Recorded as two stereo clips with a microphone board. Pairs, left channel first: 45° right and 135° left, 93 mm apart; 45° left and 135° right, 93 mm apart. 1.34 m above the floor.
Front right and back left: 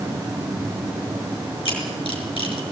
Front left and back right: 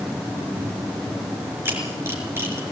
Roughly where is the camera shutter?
Right.